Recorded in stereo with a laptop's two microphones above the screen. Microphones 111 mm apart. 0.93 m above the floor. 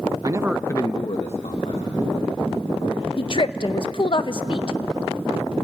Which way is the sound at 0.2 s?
40° right (ahead or behind).